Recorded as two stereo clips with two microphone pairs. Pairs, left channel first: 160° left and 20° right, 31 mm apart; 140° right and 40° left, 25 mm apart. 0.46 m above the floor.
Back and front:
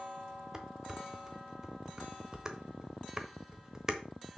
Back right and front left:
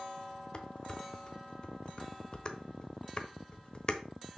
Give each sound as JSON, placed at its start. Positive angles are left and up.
{"t": 0.5, "sound": "dishes clattering", "azimuth_deg": -90, "distance_m": 1.0}